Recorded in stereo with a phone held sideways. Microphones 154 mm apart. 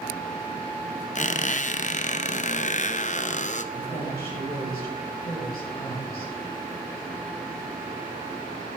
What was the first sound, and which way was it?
A squeak, 50° left (ahead or behind).